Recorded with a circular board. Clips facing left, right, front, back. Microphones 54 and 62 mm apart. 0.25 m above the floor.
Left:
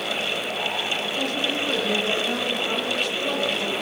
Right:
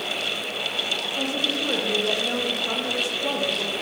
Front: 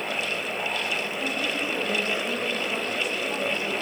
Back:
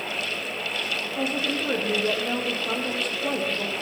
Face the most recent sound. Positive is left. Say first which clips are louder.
# right 1 dB, back 1 dB
turn(degrees=-155)